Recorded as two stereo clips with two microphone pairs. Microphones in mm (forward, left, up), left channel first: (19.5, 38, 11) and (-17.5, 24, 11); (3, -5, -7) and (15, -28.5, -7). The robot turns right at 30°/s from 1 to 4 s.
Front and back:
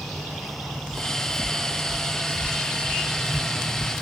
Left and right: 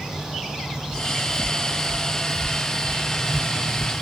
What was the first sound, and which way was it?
Footsteps, 130° left.